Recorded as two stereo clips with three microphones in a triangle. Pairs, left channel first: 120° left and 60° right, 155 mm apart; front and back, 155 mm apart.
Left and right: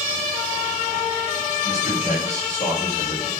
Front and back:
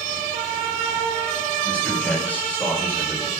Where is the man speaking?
80° left, 6 m.